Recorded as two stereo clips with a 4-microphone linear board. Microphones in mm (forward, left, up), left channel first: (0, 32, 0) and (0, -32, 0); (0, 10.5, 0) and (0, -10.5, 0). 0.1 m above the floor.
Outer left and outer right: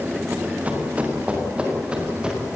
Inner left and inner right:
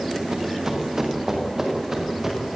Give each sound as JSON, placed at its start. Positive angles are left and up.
{"t": 0.3, "sound": "running footsteps", "side_deg": -25, "distance_m": 5.5}